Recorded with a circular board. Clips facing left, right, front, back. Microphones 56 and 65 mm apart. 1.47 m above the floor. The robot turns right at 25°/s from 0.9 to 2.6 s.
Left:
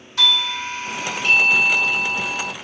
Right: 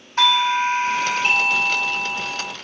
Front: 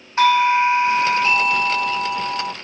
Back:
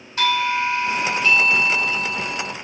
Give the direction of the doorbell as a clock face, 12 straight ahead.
2 o'clock.